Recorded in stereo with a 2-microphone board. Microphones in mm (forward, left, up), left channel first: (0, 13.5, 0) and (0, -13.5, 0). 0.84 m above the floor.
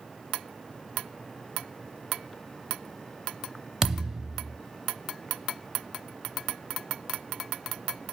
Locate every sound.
3.8 s a thud: 20° right (ahead or behind), 0.6 m